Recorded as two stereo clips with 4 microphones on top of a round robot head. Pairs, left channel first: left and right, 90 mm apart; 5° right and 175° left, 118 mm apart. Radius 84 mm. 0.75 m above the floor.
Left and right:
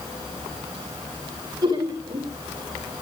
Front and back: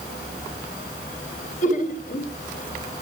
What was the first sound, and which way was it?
Laughter, 30° right.